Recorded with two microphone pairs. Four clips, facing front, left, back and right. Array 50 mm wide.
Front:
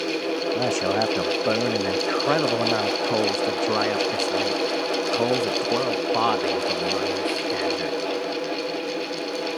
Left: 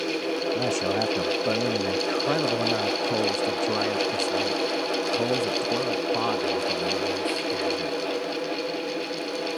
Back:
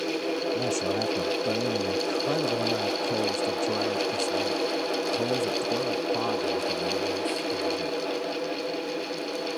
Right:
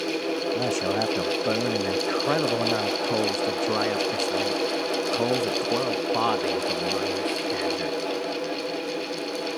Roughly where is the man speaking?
Ahead.